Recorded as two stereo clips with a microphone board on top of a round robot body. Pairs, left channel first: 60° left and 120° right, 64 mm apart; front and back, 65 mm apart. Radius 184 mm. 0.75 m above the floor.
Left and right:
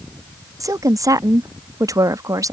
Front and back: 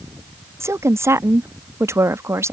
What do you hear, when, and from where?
0.6 s a woman speaking: 140° right